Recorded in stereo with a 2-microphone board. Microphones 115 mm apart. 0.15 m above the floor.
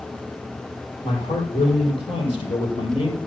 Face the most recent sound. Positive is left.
turn(degrees=50)  # may be behind; listen again after turning